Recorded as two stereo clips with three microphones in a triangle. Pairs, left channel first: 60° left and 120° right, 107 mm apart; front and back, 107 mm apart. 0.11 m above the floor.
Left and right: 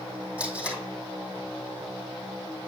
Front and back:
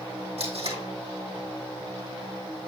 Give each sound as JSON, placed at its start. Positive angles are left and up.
{"t": 0.4, "sound": "tape being pulled", "azimuth_deg": 160, "distance_m": 3.0}